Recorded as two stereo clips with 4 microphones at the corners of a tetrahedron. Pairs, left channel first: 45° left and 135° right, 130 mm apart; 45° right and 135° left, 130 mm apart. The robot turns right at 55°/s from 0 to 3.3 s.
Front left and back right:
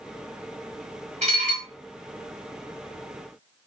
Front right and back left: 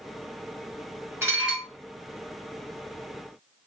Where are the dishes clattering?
160° right, 1.4 m; by 1.7 s 135° right, 1.4 m.